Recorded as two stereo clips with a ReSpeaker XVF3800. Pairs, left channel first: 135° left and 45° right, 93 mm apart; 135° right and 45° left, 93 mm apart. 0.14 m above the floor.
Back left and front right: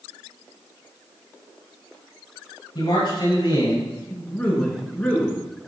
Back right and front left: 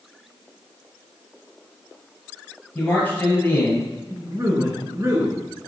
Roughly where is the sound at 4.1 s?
Left.